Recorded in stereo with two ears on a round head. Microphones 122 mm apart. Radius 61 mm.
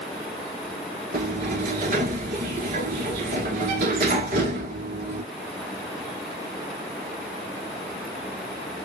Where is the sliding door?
55° right (ahead or behind), 1.0 m.